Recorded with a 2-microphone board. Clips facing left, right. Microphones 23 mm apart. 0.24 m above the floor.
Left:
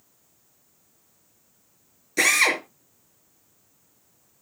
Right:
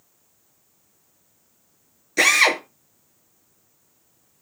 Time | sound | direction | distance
2.2 | a drill | 10° right (ahead or behind) | 4 m